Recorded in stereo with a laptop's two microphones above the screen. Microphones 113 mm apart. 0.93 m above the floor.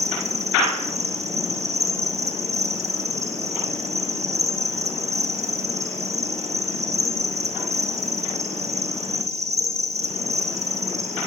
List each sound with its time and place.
0.0 s an insect: 75° right (ahead or behind), 9.5 m